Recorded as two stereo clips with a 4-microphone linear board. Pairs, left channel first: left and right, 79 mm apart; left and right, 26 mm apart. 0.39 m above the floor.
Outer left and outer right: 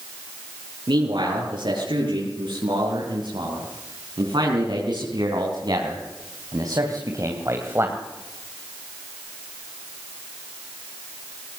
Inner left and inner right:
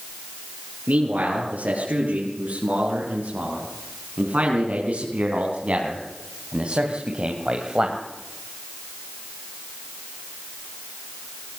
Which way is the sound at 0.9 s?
80° right.